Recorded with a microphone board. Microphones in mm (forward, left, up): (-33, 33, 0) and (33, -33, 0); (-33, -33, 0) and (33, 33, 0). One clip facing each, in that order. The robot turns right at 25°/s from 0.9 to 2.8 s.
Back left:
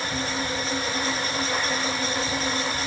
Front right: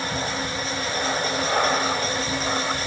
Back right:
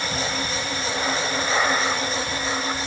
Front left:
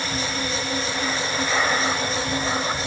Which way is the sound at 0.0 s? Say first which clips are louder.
Front right 1 dB, even; 80° right.